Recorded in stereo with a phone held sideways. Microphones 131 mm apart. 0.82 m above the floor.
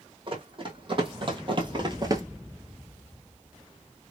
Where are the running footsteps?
40° right (ahead or behind), 2 m; by 2.2 s 25° right (ahead or behind), 0.8 m.